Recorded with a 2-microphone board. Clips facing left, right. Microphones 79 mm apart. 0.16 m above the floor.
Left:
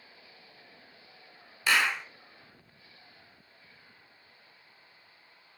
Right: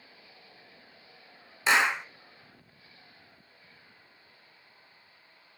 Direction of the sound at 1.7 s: 20° right (ahead or behind).